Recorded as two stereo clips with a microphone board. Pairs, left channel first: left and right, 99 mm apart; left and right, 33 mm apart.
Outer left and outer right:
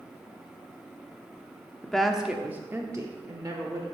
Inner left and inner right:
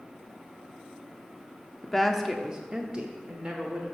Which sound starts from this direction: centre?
A woman speaking, at 1.8 s.